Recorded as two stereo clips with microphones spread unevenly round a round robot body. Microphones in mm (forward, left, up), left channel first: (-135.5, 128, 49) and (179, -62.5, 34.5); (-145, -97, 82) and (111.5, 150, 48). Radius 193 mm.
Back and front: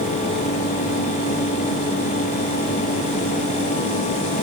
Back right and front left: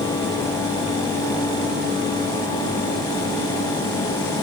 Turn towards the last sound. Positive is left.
No sound to turn to.